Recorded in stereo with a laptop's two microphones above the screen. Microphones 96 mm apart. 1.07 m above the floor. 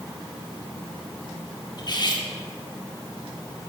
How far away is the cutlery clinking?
About 1.7 m.